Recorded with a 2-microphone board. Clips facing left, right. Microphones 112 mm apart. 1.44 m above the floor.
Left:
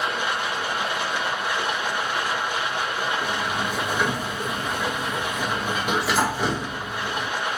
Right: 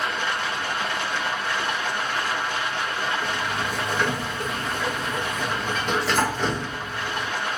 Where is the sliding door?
10° left (ahead or behind), 0.6 m.